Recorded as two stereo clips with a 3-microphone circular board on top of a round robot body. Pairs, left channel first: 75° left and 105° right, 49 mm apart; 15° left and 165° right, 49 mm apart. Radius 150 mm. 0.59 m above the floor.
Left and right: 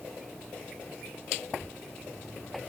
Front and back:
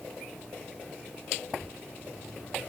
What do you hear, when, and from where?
Only background noise.